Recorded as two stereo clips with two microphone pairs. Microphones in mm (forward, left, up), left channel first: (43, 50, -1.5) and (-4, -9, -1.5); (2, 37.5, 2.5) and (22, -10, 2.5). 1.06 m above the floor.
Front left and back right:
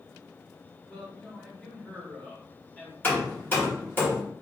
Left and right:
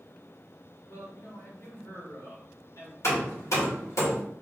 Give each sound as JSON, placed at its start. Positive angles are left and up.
{"t": 0.9, "sound": "a man speaking", "azimuth_deg": 120, "distance_m": 1.8}
{"t": 3.0, "sound": "hammering", "azimuth_deg": 110, "distance_m": 1.6}